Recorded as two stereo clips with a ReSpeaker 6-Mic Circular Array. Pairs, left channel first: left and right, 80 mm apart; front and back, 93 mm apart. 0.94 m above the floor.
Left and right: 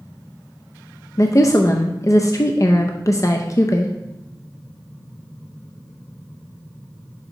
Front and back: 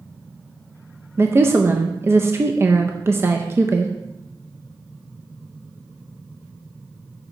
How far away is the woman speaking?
About 0.5 m.